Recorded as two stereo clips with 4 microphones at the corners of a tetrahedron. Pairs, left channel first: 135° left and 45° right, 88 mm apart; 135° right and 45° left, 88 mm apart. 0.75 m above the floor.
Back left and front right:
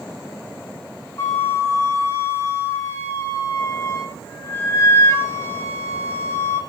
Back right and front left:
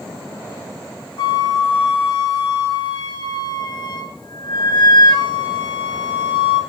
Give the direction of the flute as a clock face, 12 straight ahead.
6 o'clock.